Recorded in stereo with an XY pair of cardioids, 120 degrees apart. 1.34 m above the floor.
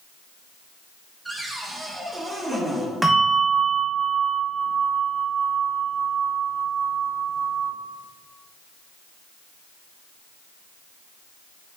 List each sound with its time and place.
1.2 s a cupboard door: 15° right, 1.6 m
3.0 s a bell: 10° right, 1.5 m